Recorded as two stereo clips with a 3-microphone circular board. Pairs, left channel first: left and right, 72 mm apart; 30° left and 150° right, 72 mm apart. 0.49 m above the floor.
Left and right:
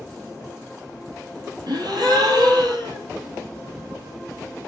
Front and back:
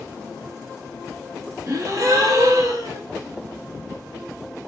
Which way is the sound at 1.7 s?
105° right.